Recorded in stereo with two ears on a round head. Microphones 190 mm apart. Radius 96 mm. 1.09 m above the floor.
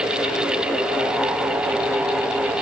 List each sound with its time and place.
Only background noise.